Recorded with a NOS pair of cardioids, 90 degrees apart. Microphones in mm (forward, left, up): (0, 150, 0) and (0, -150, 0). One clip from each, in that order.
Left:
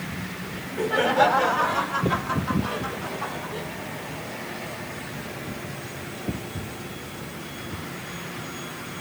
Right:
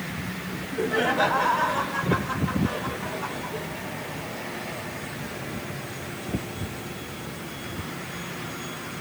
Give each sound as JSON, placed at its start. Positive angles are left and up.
{"t": 0.5, "sound": "laughter", "azimuth_deg": 40, "distance_m": 5.0}